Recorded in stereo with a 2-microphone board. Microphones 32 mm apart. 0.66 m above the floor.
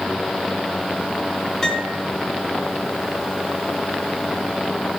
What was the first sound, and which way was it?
A piano, 15° left (ahead or behind).